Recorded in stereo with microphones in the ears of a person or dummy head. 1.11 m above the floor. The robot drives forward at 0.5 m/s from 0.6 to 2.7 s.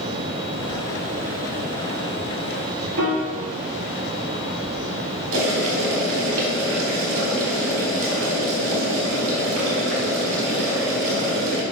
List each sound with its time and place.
3.0 s a piano: 80° right, 1.8 m
5.3 s boiling: 65° right (ahead or behind), 3 m